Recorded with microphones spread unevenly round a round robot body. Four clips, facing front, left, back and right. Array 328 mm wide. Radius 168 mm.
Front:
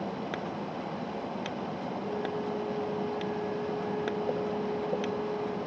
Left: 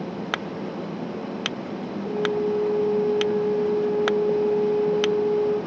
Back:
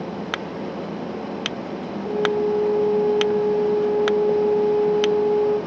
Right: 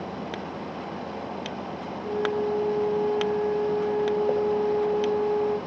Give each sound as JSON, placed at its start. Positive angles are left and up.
{"t": 2.0, "sound": "a flute", "azimuth_deg": 170, "distance_m": 4.5}